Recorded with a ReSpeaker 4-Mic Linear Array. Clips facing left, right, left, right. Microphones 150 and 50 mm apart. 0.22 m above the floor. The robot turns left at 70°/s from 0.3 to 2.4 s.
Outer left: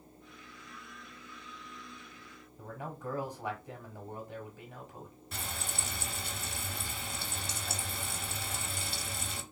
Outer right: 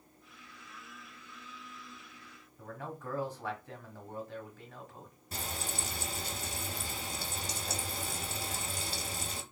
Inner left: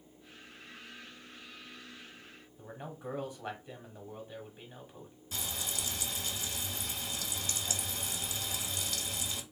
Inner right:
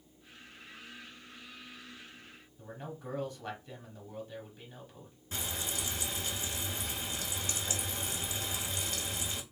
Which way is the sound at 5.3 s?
40° right (ahead or behind).